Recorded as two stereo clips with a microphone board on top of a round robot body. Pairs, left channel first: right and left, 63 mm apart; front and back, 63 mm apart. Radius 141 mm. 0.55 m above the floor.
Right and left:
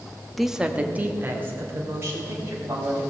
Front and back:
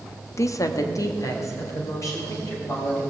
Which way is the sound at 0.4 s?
Straight ahead.